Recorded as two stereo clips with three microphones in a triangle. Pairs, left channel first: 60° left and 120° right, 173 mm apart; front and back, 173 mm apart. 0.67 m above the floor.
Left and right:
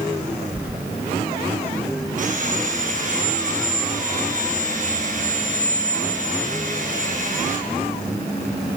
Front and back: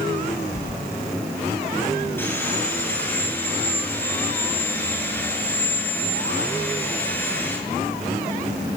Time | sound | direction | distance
0.6 | keys jangling | 40° right | 2.5 m
2.2 | sawing | 80° right | 7.5 m